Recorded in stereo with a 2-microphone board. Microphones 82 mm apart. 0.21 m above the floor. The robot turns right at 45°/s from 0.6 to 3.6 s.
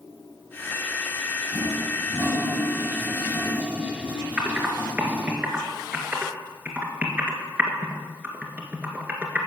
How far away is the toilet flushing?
About 1.6 m.